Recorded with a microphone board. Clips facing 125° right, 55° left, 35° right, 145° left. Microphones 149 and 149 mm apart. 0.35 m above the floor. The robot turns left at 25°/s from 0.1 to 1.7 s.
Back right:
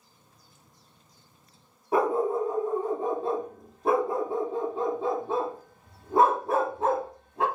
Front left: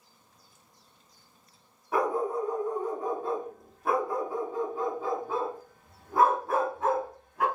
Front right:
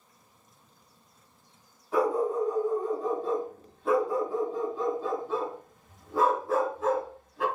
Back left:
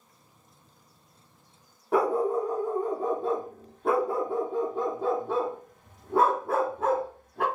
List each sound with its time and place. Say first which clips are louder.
1.9 s a dog barking: back right 3 dB, back left 1 dB; 175° left, 0.7 m